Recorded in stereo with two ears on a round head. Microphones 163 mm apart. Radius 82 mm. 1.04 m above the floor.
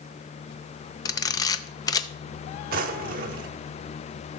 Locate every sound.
1.1 s a camera shutter: 20° left (ahead or behind), 0.5 m
2.7 s a drawer: 50° right (ahead or behind), 0.9 m